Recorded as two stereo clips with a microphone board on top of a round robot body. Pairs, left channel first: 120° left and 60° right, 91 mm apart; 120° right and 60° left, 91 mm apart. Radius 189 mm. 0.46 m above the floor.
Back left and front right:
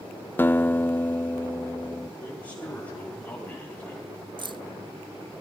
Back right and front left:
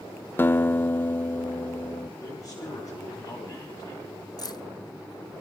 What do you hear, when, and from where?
0.4 s a guitar: straight behind, 0.7 m
2.2 s a man speaking: 175° right, 9 m
4.4 s keys jangling: 80° right, 0.8 m